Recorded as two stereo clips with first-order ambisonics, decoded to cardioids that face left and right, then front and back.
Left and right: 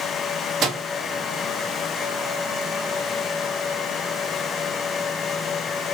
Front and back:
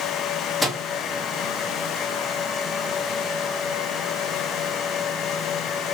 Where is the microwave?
90° right, 0.6 m.